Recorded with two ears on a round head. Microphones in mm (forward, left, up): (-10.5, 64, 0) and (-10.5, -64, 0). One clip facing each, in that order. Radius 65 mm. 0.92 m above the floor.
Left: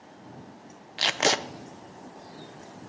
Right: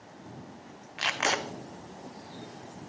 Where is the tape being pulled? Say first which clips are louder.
Left 4 dB; 35° left (ahead or behind), 0.5 m.